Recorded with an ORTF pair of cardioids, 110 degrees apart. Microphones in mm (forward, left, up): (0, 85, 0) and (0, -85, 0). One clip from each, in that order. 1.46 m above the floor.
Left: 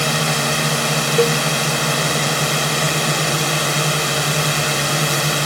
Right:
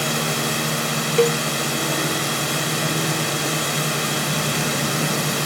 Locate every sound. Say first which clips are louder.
0.0 s a drone: left 4 dB; 30° left
1.2 s a cowbell: left 1 dB; straight ahead